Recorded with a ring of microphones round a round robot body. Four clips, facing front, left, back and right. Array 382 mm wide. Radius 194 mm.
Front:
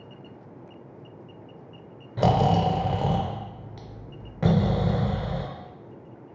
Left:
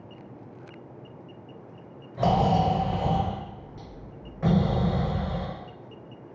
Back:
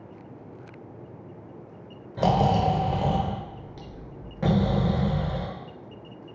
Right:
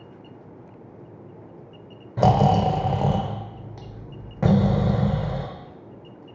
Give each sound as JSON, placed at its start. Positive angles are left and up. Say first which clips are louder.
{"t": 2.2, "sound": "snoring", "louder": "right 4 dB, even", "azimuth_deg": -75, "distance_m": 0.5}